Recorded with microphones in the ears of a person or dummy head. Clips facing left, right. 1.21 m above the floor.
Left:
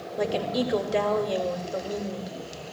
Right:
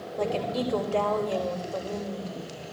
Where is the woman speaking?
20° left (ahead or behind), 2.5 m.